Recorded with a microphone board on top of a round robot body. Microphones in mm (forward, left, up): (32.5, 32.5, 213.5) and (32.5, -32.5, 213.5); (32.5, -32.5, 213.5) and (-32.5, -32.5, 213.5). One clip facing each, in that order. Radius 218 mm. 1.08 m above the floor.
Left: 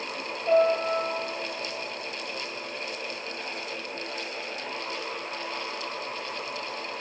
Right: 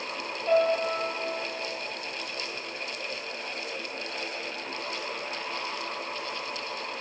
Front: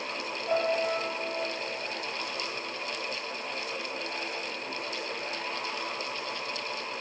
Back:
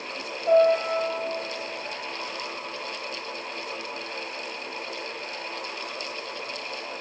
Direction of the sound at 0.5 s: 170° left.